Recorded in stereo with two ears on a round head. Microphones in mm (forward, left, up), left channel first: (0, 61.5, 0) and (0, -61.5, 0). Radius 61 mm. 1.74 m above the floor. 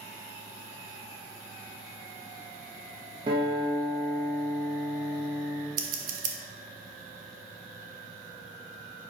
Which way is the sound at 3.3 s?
35° right (ahead or behind).